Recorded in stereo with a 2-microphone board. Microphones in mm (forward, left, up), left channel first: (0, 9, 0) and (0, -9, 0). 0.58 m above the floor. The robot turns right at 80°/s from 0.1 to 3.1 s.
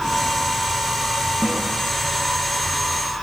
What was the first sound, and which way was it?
A snare drum, 60° right (ahead or behind).